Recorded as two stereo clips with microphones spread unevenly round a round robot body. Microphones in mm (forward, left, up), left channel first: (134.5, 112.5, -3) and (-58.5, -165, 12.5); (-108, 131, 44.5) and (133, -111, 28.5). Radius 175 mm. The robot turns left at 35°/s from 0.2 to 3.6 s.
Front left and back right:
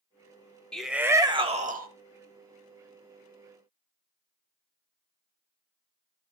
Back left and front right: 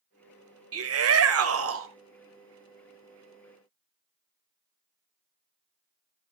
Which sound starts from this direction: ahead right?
A shout, at 0.7 s.